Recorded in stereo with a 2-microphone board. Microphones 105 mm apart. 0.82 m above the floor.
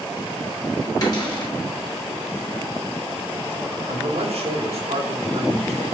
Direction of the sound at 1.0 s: 40° left (ahead or behind).